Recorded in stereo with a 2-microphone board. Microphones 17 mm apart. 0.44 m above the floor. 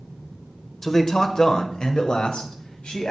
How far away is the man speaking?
About 1.3 m.